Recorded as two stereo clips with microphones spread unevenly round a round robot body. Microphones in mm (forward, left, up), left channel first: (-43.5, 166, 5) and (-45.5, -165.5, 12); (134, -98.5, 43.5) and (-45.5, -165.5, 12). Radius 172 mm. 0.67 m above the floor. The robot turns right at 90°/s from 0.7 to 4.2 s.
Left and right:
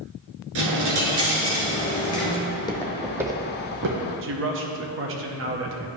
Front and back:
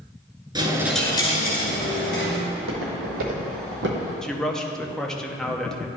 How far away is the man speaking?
About 0.8 m.